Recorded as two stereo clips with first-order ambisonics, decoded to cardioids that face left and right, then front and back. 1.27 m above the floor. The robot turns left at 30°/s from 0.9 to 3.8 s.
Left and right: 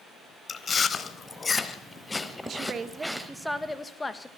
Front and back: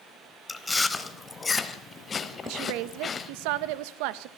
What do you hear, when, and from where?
0.5 s chewing: 60° left, 1.1 m; by 3.3 s 10° right, 1.1 m
2.4 s a woman speaking: 150° right, 1.2 m; by 4.3 s 170° left, 1.2 m